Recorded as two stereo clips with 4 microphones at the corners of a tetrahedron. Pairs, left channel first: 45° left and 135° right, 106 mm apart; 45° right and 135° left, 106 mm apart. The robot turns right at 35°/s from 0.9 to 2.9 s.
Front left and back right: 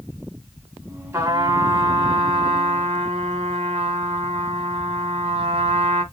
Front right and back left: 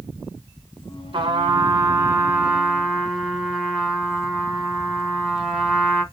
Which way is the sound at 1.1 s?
160° left.